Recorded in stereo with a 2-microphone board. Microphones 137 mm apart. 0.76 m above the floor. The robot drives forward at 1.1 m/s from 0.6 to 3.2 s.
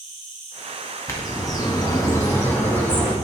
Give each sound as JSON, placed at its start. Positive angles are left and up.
{"t": 0.0, "sound": "an insect", "side_deg": 50, "distance_m": 2.5}
{"t": 1.1, "sound": "a bird", "side_deg": 20, "distance_m": 1.0}